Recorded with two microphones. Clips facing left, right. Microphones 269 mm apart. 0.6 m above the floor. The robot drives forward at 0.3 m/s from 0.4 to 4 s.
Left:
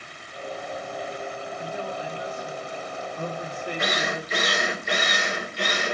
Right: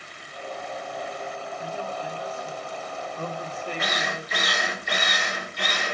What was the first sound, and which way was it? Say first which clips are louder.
A man speaking: left 1 dB; 15° left (ahead or behind).